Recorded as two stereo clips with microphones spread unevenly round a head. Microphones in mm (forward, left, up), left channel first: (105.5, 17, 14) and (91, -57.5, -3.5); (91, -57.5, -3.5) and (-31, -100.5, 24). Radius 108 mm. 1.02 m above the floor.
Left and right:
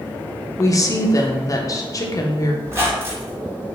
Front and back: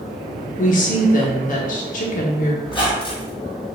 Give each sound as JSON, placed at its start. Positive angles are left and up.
{"t": 0.6, "sound": "a woman speaking", "azimuth_deg": 25, "distance_m": 0.9}
{"t": 2.6, "sound": "a squeak", "azimuth_deg": -35, "distance_m": 1.8}